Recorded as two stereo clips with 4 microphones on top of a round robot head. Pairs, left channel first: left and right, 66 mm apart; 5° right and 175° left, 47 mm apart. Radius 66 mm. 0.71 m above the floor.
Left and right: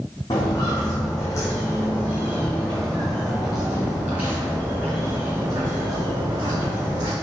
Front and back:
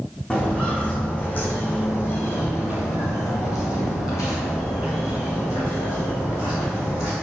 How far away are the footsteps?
About 2 m.